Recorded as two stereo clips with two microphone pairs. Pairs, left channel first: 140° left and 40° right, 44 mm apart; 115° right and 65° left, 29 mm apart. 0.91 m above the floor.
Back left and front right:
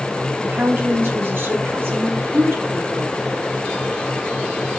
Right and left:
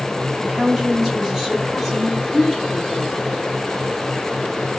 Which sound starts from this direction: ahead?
A woman speaking, at 0.4 s.